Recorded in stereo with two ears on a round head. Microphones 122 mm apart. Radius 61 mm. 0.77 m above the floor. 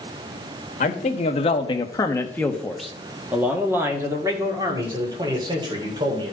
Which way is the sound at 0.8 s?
55° left (ahead or behind).